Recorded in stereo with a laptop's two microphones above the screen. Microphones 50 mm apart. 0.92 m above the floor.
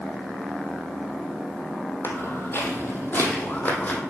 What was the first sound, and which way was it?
Footsteps, 55° left (ahead or behind).